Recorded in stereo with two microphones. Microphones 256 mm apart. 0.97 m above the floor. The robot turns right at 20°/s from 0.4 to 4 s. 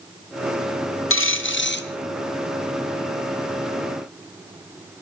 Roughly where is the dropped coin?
Left.